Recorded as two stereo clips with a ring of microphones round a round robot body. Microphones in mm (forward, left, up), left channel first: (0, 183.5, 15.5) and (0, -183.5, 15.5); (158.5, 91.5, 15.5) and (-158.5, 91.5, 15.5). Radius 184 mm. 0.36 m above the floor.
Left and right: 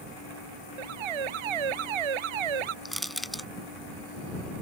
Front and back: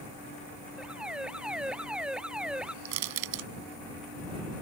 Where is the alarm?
90° right.